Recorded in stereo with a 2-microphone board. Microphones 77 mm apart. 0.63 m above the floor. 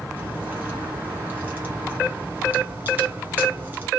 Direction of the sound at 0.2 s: 30° right (ahead or behind).